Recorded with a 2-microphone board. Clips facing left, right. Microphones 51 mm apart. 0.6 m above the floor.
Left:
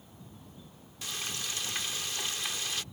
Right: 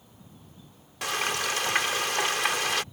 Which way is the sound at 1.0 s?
70° right (ahead or behind).